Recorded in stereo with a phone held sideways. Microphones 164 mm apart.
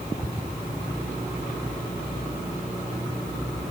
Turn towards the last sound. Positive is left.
No sound to turn to.